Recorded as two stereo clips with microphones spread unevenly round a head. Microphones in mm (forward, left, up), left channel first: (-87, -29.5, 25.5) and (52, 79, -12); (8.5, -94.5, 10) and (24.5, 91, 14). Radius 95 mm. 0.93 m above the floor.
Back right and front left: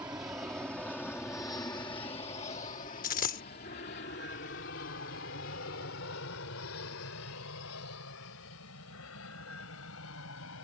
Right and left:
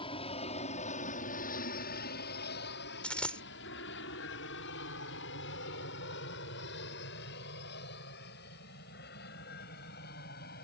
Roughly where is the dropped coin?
Behind.